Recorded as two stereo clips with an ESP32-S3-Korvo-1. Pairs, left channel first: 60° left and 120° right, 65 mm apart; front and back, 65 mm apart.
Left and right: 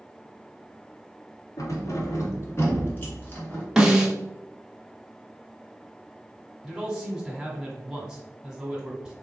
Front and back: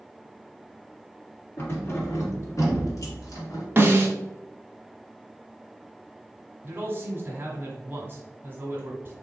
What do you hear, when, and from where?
1.6 s keys jangling: 50° left, 1.3 m; by 3.6 s 5° right, 1.4 m
3.8 s a snare drum: 170° left, 0.7 m
6.6 s a man speaking: 170° left, 1.3 m